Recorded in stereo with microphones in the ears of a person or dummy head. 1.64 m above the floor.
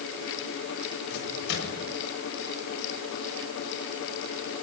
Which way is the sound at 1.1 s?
65° left (ahead or behind).